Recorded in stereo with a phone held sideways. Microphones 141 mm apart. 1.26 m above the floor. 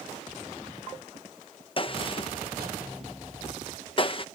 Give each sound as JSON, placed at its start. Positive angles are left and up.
{"t": 1.8, "sound": "a gunshot", "side_deg": 40}